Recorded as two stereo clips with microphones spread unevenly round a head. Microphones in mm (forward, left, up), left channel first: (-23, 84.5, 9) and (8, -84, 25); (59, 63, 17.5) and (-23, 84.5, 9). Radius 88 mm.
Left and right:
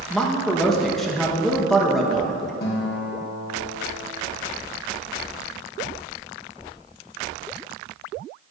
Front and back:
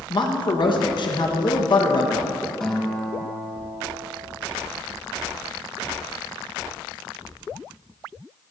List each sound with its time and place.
0.1 s a man speaking: 15° left, 1.3 m
2.6 s a guitar: 65° left, 2.5 m